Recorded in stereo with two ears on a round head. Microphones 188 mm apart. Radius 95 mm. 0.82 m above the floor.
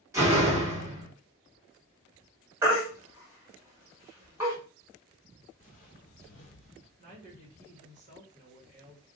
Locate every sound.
0.1 s a door slam: 15° right (ahead or behind), 1.3 m
2.6 s a baby crying: 15° right (ahead or behind), 1.4 m
5.6 s footsteps: 40° left (ahead or behind), 1.1 m; by 6.9 s 30° left (ahead or behind), 1.0 m
7.0 s a woman speaking: 35° right (ahead or behind), 1.3 m